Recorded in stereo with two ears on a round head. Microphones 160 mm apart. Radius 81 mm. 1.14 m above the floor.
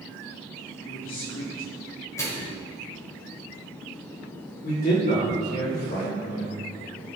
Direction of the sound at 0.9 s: 80° left.